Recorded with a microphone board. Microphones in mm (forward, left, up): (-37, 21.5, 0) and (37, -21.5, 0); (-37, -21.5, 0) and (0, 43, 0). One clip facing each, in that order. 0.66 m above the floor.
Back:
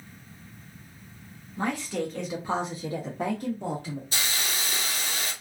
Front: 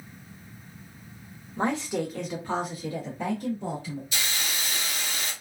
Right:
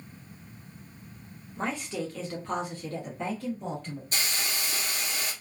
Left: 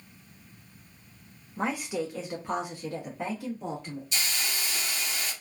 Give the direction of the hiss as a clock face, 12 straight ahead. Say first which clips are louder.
Back 1 dB, right 1 dB; 5 o'clock.